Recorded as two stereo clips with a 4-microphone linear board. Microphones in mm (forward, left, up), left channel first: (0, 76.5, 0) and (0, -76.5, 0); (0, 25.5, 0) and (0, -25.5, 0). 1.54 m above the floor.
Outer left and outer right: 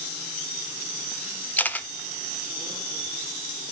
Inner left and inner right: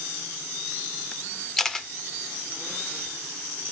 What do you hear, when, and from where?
1.6 s a camera shutter: 10° left (ahead or behind), 0.5 m